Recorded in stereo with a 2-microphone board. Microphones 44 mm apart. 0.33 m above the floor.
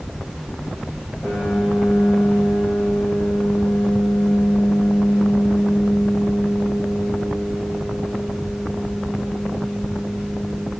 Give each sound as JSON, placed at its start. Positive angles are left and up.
{"t": 1.2, "sound": "a piano", "side_deg": 20, "distance_m": 6.0}